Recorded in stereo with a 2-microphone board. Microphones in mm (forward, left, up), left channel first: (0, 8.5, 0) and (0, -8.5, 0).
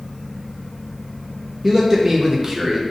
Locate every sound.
1.6 s a man speaking: 25° right (ahead or behind), 0.5 m